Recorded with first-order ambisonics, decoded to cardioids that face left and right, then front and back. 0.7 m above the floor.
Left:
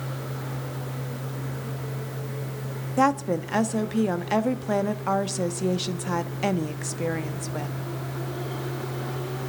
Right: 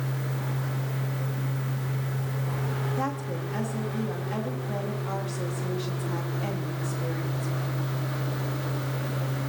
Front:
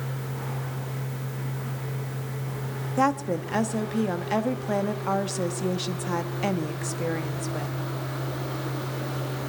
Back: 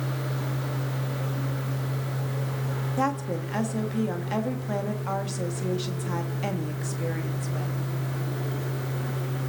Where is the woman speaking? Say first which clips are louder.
Left 13 dB, front 4 dB; 70° left, 1.0 m.